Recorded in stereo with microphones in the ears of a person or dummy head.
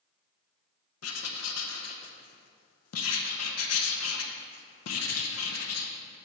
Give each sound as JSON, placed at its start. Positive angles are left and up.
{"t": 1.0, "sound": "writing", "side_deg": 80, "distance_m": 0.8}